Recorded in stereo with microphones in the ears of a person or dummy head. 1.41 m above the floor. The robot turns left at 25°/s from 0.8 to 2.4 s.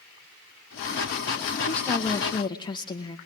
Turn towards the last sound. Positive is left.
turn(degrees=25)  # may be behind; listen again after turning